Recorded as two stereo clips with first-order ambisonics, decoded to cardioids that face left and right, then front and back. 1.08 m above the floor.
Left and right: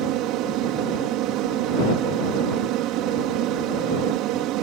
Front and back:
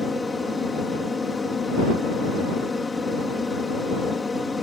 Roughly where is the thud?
No thud in this recording.